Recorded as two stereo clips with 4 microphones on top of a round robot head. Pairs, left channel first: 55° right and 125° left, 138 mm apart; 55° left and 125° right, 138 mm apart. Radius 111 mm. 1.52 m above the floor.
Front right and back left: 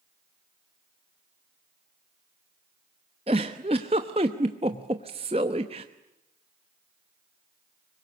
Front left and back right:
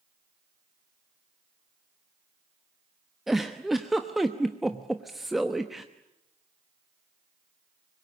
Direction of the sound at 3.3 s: 150° left.